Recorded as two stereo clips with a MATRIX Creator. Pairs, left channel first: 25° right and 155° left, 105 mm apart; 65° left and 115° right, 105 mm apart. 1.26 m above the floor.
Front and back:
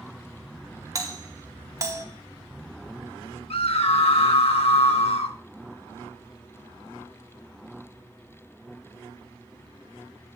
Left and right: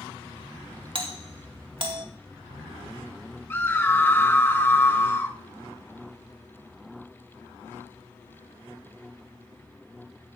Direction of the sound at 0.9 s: 145° right.